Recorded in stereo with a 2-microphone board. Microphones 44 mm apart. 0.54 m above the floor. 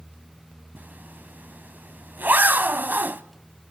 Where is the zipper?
50° right (ahead or behind), 0.6 m.